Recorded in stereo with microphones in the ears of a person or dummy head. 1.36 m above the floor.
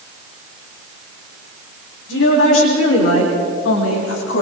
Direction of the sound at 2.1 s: 80° left.